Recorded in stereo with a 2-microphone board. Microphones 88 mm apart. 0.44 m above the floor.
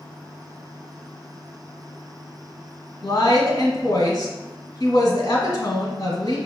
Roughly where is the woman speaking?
Left.